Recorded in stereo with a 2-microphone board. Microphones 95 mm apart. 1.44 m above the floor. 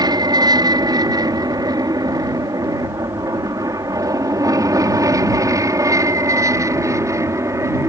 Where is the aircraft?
45° right (ahead or behind); by 7.9 s 30° right (ahead or behind).